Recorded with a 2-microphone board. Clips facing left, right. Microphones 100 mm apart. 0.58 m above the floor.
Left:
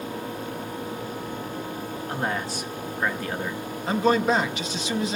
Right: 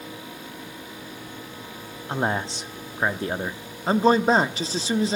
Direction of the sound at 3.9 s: 35° right (ahead or behind).